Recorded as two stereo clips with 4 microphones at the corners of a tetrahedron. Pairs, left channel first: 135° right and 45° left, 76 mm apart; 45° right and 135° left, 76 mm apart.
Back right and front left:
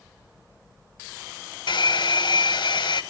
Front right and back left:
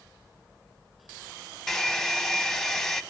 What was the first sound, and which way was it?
A hair dryer, 130° right.